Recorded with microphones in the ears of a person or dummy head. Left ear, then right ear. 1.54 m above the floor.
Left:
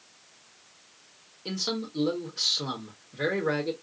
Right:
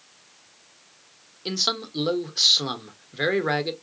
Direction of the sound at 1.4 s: 35° right (ahead or behind).